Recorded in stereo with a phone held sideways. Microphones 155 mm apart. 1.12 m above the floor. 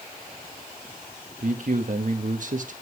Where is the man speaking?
55° right (ahead or behind), 1.4 m.